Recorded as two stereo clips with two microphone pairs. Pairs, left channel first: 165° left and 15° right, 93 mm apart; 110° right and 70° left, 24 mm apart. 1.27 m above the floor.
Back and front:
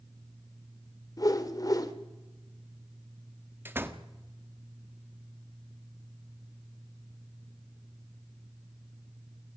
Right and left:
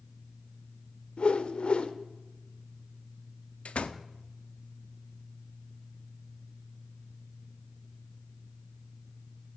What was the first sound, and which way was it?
A whoosh, 150° right.